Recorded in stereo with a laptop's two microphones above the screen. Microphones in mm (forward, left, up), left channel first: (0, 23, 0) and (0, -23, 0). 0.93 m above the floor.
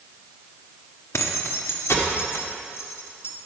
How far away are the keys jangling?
About 0.9 m.